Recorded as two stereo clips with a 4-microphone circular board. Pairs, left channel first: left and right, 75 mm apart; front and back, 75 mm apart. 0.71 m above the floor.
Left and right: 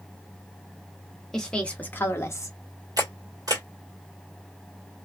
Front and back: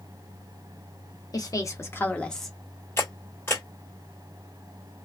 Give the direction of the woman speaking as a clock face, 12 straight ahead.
12 o'clock.